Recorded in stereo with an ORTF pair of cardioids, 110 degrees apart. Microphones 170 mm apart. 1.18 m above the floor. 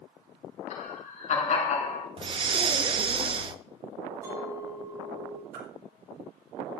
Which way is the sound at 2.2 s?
30° right.